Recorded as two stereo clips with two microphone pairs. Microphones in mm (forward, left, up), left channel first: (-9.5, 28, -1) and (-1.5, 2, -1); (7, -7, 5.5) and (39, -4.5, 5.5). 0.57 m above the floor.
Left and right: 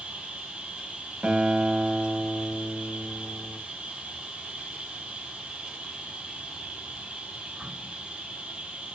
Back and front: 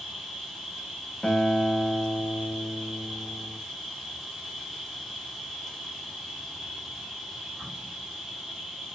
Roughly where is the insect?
Right.